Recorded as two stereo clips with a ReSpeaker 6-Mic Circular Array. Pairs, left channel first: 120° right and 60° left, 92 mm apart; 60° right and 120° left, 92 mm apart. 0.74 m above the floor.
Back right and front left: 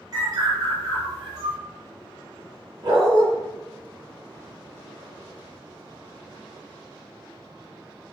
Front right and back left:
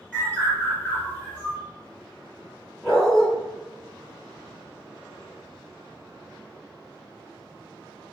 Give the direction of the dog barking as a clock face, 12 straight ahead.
11 o'clock.